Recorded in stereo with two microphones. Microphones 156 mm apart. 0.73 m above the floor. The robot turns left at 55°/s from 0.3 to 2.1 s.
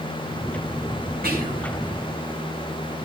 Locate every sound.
1.2 s whispering: 75° right (ahead or behind), 4 m; by 1.7 s 50° right (ahead or behind), 4 m